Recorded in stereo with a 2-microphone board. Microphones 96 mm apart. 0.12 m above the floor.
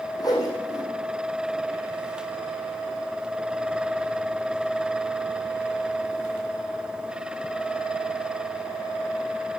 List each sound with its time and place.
0.2 s a whoosh: 40° left (ahead or behind), 5.5 m